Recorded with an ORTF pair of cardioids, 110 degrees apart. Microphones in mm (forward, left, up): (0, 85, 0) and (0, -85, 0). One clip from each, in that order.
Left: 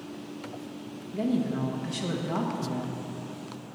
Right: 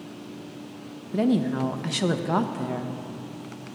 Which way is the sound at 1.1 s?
45° right.